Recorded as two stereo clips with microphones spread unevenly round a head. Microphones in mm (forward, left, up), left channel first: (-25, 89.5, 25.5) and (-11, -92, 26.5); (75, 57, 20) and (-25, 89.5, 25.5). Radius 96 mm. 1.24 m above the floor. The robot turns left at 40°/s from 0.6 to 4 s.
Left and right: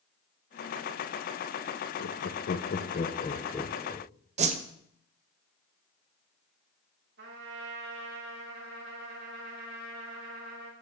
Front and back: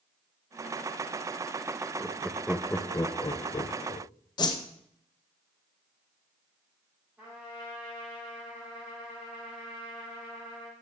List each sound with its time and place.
2.0 s laughter: 85° left, 0.6 m; by 4.1 s 5° left, 0.6 m
4.4 s a whoosh: 45° right, 0.6 m
7.2 s a trumpet: 115° right, 2.5 m